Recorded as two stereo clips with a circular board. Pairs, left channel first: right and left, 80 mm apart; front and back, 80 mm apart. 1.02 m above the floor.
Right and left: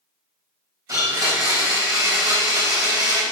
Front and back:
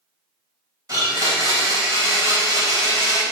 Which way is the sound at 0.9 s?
140° left.